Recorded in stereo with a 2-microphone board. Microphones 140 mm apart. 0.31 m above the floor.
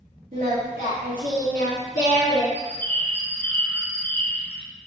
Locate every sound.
0.3 s singing: 70° right (ahead or behind), 1.7 m
2.5 s a bird: 15° left (ahead or behind), 0.6 m